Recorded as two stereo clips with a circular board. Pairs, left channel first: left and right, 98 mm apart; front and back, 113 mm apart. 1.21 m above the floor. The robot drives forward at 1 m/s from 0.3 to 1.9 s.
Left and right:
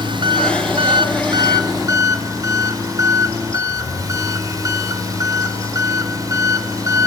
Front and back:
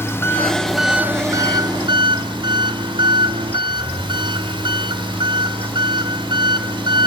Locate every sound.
0.0 s an engine running: 65° right, 1.2 m; by 7.1 s 140° right, 1.6 m